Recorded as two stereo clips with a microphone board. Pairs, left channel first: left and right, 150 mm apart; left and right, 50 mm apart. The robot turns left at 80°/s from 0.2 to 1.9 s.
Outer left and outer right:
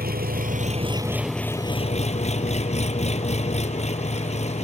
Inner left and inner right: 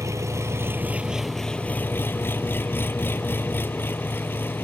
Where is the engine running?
90° right; by 4.7 s 135° left.